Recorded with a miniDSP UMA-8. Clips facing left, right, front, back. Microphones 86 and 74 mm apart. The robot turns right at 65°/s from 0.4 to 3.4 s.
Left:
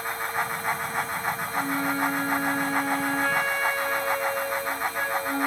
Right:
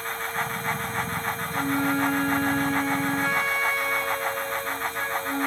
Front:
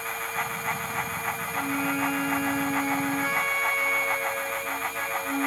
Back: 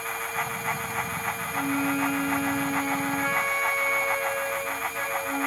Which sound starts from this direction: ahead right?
A flute, at 1.5 s.